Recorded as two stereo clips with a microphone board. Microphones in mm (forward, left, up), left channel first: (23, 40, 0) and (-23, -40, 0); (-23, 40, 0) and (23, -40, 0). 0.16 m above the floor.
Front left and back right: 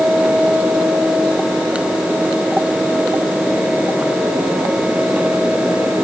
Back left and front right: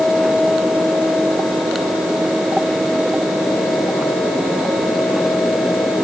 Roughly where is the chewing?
I don't hear chewing.